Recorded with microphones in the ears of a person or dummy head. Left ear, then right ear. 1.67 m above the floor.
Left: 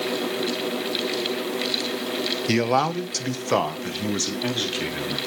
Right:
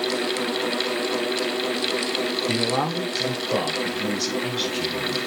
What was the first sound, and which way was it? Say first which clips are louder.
A man speaking: left 6 dB; 85° left.